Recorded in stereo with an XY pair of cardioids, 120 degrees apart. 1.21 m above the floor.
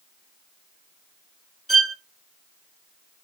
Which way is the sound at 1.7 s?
5° left.